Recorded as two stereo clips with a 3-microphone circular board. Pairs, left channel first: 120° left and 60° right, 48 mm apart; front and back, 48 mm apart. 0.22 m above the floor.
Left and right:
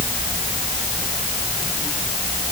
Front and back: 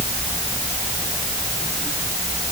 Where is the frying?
No frying in this recording.